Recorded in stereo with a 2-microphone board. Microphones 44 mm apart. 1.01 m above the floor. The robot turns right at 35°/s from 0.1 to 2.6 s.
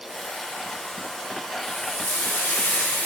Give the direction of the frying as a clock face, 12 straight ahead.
9 o'clock.